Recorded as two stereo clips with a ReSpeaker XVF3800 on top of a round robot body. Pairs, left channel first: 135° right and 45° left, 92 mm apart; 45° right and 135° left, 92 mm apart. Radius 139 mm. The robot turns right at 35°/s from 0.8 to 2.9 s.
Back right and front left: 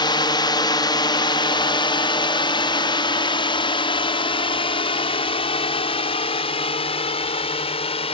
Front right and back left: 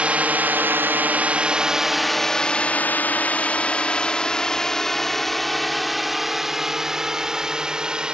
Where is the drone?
150° right; by 8.2 s 145° right.